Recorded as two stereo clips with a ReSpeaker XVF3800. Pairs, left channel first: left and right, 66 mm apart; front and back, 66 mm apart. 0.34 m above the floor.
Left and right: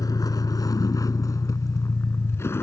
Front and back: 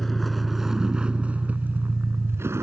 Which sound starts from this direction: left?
A vehicle, at 0.0 s.